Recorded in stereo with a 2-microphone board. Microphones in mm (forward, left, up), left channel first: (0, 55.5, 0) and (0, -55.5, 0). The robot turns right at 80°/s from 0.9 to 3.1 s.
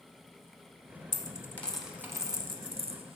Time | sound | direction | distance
1.1 | a dropped coin | 40° left (ahead or behind) | 0.8 m